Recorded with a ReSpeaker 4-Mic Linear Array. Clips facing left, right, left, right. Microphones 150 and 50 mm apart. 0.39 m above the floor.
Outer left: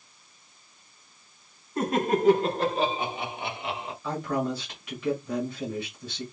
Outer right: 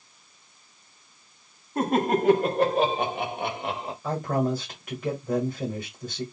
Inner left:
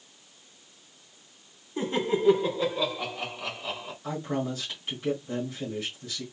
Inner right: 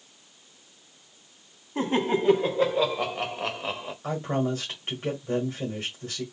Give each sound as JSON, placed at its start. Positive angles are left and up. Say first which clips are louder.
{"t": 1.8, "sound": "laughter", "louder": "outer right 2 dB, inner right 2 dB", "side_deg": -50, "distance_m": 2.5}
{"t": 4.0, "sound": "a man speaking", "louder": "outer right 3 dB, inner right 3 dB", "side_deg": -40, "distance_m": 1.7}